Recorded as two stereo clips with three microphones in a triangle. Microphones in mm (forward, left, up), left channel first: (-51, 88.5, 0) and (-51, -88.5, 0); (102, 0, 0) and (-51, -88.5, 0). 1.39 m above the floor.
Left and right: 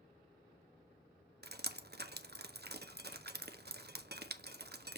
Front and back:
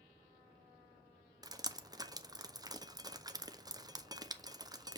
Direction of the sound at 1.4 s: 80° right.